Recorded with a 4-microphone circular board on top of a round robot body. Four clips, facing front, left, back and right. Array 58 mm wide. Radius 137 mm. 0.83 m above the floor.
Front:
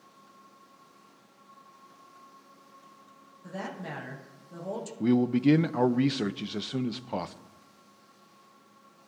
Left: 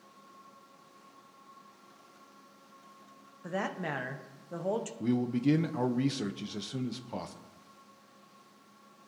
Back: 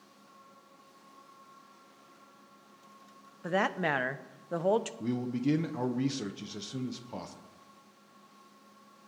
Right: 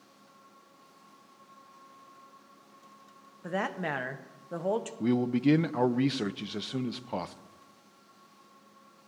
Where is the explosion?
I don't hear an explosion.